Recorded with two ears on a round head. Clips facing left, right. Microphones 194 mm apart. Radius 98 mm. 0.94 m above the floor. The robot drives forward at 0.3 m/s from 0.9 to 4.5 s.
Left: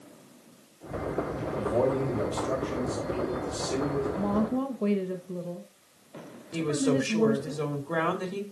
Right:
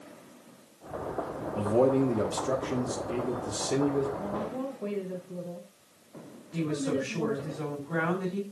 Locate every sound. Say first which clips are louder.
1.6 s a man speaking: right 3 dB; 35° right (ahead or behind), 1.4 m; by 4.1 s 25° right (ahead or behind), 2 m
4.2 s a woman speaking: left 6 dB; 60° left (ahead or behind), 1.2 m
6.5 s a woman speaking: left 4 dB; 55° left (ahead or behind), 2 m